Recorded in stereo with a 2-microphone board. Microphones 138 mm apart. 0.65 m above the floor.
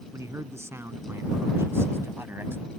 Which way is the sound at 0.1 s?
20° right (ahead or behind).